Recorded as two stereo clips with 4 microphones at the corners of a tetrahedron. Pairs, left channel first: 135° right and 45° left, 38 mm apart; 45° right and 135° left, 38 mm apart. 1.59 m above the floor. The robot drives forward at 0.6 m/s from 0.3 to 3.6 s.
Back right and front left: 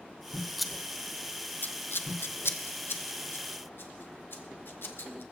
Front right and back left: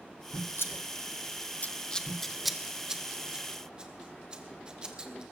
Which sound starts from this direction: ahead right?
Scissors, at 0.6 s.